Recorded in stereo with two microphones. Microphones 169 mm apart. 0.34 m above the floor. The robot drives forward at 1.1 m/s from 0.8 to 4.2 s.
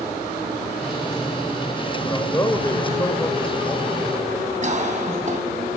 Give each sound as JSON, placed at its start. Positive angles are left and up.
{"t": 2.1, "sound": "a man speaking", "side_deg": 15, "distance_m": 1.3}
{"t": 4.6, "sound": "a cough", "side_deg": -45, "distance_m": 2.5}